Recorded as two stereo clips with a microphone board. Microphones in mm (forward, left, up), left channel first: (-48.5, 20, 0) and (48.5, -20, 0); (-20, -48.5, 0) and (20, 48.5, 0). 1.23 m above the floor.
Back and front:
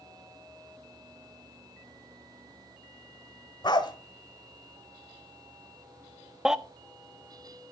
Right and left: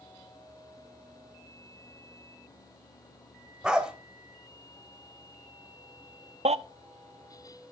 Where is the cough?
No cough in this recording.